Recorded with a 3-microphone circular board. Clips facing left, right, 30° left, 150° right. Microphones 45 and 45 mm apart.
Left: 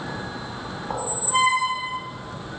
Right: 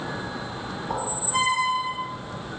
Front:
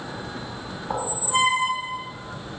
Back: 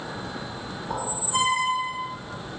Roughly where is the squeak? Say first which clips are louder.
Left 3 dB, front 3 dB; ahead left.